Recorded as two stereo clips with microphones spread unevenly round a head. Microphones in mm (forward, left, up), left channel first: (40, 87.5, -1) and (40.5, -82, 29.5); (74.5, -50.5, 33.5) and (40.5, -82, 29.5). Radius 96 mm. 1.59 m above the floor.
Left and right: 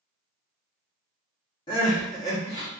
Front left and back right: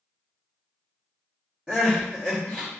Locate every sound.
1.7 s crying: 140° left, 1.1 m